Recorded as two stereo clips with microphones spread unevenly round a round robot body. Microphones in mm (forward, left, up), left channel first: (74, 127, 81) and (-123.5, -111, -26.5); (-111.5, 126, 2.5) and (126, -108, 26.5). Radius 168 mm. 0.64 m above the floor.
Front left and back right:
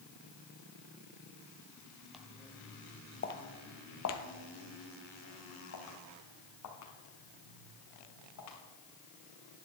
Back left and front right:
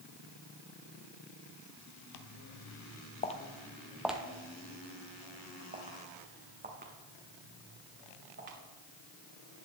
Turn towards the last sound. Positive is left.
turn(degrees=15)